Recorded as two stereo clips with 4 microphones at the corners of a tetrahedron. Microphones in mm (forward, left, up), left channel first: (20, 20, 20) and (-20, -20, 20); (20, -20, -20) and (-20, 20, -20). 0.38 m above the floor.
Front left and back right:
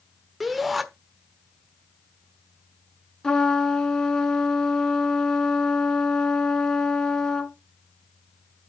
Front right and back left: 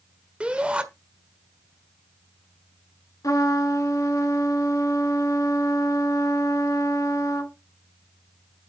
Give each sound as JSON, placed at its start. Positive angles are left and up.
{"t": 0.4, "sound": "a shout", "azimuth_deg": 140, "distance_m": 1.2}
{"t": 3.2, "sound": "a trumpet", "azimuth_deg": -35, "distance_m": 1.8}